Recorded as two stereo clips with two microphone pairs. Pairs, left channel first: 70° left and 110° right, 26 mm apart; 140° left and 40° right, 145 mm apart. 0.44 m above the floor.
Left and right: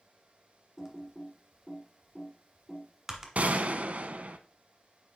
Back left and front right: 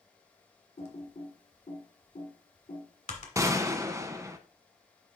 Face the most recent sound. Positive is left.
turn(degrees=-100)